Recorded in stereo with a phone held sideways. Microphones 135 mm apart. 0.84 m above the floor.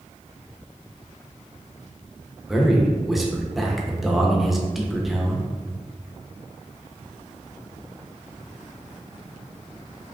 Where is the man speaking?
Centre (ahead or behind), 0.6 m.